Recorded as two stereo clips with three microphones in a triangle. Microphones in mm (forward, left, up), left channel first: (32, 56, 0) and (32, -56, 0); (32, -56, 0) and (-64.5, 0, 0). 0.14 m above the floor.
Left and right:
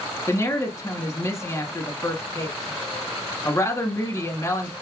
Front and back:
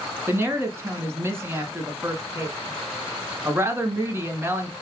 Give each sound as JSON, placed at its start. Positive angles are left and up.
{"t": 0.3, "sound": "a woman speaking", "azimuth_deg": 110, "distance_m": 1.1}